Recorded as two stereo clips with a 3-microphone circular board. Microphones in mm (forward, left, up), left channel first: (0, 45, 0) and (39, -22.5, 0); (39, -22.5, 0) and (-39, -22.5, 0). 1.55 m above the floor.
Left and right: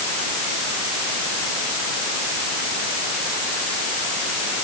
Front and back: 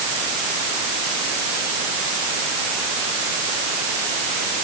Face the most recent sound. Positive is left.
No sound to turn to.